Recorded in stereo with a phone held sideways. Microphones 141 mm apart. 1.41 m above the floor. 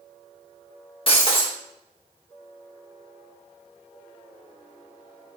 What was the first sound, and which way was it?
Breaking glass, 40° left (ahead or behind).